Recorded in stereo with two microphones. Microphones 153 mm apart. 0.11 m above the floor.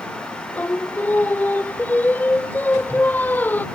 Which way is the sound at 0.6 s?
10° left (ahead or behind).